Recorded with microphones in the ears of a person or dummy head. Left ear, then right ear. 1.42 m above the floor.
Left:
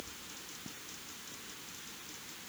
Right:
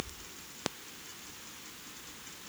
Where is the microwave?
No microwave in this recording.